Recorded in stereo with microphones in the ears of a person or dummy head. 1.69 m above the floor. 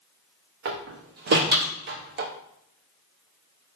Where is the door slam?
45° right (ahead or behind), 0.6 m.